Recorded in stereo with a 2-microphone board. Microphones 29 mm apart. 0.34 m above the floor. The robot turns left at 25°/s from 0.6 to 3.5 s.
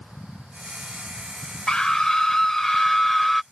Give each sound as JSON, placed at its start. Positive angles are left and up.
{"t": 1.7, "sound": "a scream", "azimuth_deg": 50}